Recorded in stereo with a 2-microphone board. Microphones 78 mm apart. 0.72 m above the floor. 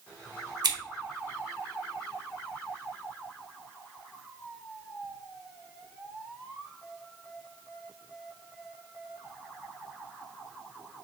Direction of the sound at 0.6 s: 60° right (ahead or behind).